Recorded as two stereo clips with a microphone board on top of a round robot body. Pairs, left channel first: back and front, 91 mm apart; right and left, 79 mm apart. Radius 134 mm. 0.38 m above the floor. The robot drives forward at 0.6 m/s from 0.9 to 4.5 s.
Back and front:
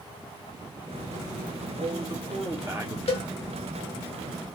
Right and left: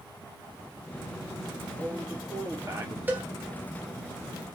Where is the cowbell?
160° left, 0.6 m; by 3.2 s 165° left, 0.7 m.